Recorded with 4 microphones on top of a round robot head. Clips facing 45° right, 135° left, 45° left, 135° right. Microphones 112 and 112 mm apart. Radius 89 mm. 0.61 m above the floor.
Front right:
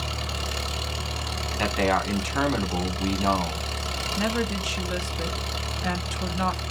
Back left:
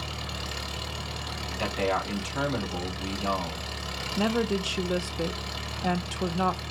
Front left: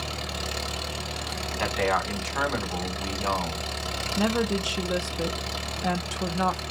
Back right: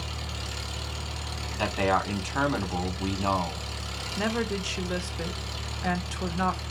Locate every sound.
0.0 s an engine running: 5° left, 1.3 m
1.6 s a man speaking: 65° right, 2 m
4.2 s a woman speaking: 95° left, 1.0 m